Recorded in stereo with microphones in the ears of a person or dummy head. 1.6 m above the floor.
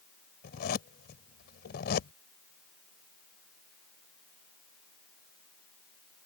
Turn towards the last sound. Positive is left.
turn(degrees=65)  # may be behind; listen again after turning